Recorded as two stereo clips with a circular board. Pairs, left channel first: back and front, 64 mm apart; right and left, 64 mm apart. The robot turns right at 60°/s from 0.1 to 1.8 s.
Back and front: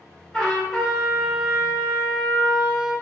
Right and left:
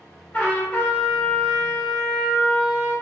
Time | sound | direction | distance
0.3 | a trumpet | 115° right | 1.5 m